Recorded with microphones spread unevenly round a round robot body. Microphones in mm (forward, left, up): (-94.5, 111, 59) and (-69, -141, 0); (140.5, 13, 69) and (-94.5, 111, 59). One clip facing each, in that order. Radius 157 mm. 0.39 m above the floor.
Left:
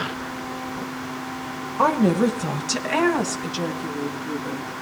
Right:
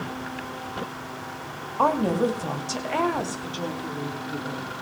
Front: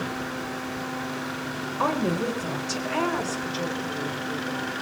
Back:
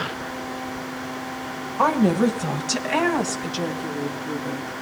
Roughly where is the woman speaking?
Behind.